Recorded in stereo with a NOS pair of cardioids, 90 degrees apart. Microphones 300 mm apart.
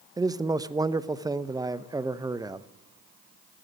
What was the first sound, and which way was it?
A man speaking, 15° right.